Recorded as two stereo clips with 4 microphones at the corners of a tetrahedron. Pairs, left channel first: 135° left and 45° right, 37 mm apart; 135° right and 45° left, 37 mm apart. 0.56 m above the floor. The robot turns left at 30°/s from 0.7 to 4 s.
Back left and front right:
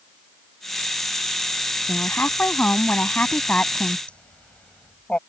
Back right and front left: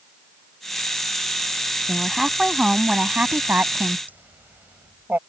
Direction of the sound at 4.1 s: 80° left.